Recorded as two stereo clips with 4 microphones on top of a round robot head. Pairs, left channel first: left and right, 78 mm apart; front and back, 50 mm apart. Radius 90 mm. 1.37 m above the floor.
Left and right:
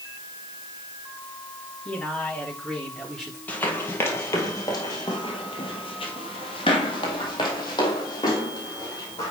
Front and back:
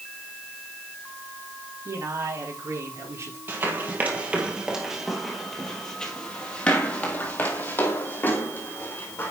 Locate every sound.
1.9 s a man speaking: 170° left, 4.5 m; by 3.4 s straight behind, 4 m
3.5 s running footsteps: 155° left, 1.7 m; by 9.3 s 35° left, 3 m